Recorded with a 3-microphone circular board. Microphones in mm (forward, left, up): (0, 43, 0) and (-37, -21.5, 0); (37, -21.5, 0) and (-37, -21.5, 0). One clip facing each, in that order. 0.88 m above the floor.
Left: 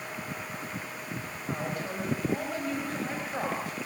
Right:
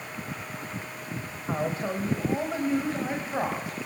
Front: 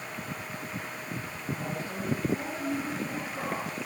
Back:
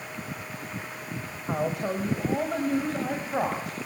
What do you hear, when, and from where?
1.5 s a woman speaking: straight behind, 4.5 m; by 3.8 s 165° left, 6 m